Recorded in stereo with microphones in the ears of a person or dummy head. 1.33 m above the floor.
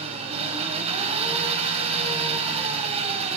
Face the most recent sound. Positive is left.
turn(degrees=-35)  # may be behind; listen again after turning